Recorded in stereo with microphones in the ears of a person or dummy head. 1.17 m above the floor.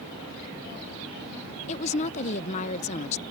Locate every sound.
1.7 s a woman speaking: 35° left (ahead or behind)